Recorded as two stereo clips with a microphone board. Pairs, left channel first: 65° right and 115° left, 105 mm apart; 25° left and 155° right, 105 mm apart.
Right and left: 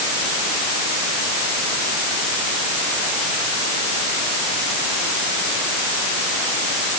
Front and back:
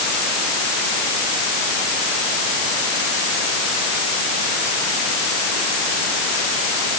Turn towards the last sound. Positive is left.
No sound to turn to.